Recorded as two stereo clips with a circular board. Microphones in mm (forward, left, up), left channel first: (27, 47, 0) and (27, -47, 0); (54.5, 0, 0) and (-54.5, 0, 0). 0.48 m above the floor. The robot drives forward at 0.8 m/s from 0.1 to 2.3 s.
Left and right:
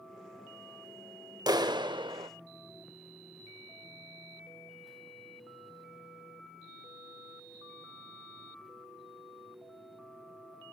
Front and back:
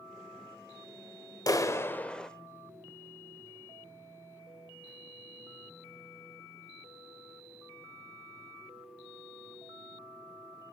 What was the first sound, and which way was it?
A clap, 50° right.